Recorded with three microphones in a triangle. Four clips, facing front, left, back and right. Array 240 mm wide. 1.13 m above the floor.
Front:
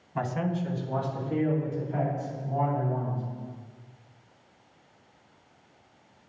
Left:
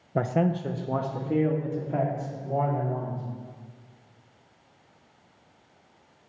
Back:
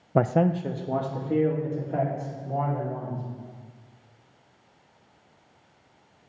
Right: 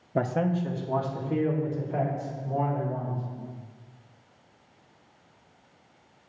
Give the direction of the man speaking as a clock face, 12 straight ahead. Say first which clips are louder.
Left 1 dB, back 8 dB; 6 o'clock.